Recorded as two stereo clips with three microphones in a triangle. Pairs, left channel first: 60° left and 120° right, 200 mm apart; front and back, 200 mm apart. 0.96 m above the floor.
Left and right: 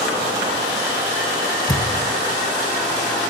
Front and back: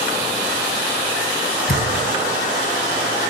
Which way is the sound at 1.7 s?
5° right.